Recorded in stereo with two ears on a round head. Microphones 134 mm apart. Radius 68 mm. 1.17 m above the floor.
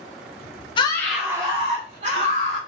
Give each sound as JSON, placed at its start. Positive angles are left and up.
{"t": 0.8, "sound": "a scream", "side_deg": 35, "distance_m": 0.5}